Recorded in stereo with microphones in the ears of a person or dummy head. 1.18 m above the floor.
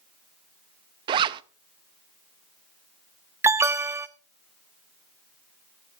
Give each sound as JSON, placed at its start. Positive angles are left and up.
{"t": 1.1, "sound": "a zipper", "side_deg": -30, "distance_m": 0.5}
{"t": 3.4, "sound": "an alarm", "side_deg": -15, "distance_m": 0.8}